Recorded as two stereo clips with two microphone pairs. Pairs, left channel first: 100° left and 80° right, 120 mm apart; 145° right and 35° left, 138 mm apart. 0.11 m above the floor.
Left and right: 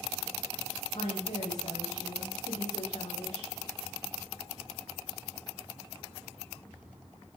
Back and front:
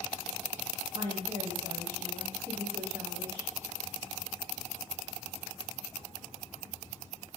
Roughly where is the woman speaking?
Left.